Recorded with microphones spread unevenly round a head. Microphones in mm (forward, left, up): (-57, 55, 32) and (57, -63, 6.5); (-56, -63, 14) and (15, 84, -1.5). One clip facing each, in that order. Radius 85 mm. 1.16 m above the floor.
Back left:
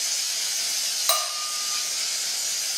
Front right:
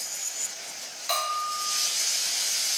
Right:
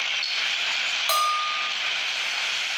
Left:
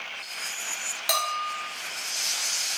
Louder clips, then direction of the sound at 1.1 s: Even, right 3 dB; 120° left.